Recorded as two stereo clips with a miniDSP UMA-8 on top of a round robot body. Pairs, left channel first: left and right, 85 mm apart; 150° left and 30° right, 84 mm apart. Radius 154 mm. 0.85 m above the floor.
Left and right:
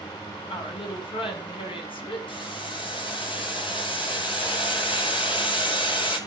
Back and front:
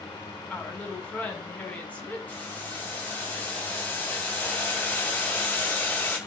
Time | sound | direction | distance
0.5 | a woman speaking | 75° left | 7.5 m
2.3 | boiling | 75° left | 6.5 m